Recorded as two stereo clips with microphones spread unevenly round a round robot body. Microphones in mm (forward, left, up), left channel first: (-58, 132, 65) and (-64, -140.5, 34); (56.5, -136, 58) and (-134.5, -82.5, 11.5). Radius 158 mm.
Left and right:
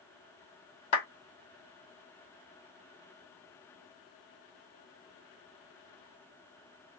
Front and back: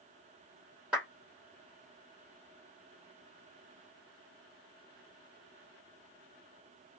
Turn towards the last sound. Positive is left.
turn(degrees=80)